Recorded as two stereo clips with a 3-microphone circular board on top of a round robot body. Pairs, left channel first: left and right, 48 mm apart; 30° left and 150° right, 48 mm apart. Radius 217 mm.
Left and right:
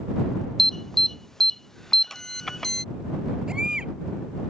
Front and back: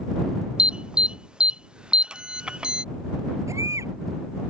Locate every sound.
0.6 s an alarm: 160° left
3.5 s a baby crying: 165° right